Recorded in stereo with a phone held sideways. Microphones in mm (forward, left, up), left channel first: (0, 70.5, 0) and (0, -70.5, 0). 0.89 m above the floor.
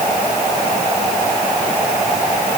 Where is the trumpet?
No trumpet in this recording.